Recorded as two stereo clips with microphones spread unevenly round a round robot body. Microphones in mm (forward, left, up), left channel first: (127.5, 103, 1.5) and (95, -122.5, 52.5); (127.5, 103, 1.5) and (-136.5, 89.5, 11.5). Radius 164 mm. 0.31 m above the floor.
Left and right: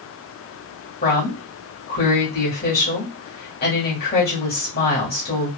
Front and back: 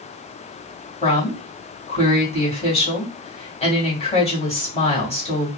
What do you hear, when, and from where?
1.0 s a woman speaking: 65° left, 2.5 m